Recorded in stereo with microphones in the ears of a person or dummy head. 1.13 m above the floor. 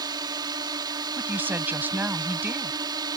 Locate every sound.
0.0 s a drone: 20° right (ahead or behind)
1.2 s a woman speaking: 10° right (ahead or behind)